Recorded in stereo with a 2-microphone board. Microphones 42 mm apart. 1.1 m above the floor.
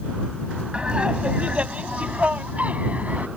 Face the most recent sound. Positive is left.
turn(degrees=-35)  # may be behind; listen again after turning